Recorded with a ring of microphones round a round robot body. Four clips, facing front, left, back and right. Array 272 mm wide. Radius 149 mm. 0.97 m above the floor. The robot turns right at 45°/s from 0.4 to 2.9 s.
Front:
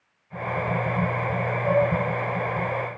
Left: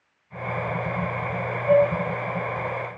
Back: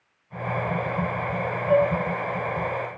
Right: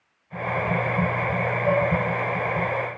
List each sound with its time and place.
1.7 s dishes clattering: 40° right, 3.5 m; by 1.9 s 25° right, 3.5 m